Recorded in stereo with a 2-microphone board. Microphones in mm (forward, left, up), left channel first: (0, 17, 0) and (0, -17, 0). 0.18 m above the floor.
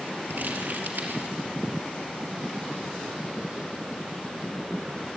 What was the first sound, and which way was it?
Crumpling, 70° right (ahead or behind).